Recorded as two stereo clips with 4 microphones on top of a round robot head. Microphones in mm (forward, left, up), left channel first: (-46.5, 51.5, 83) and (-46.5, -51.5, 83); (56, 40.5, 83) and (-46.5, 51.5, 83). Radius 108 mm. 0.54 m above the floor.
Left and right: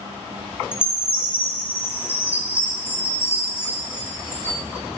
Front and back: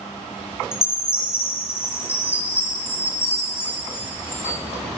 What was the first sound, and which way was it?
A chime, 40° left.